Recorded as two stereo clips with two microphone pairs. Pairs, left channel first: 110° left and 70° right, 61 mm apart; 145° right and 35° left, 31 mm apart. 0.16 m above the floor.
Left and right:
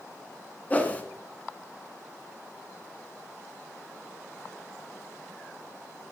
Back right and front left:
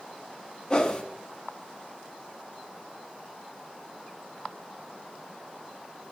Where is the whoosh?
165° left, 1.2 m.